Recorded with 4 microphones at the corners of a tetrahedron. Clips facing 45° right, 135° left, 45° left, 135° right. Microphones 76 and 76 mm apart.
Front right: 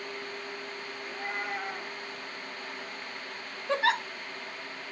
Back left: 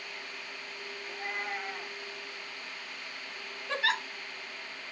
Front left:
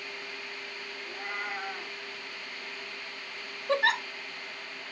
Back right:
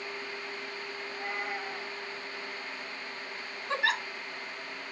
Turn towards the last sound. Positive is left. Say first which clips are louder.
# front right 4 dB, front left 4 dB
turn(degrees=10)